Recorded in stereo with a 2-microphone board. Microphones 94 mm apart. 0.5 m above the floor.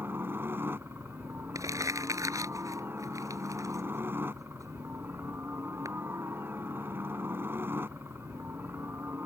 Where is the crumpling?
35° right (ahead or behind).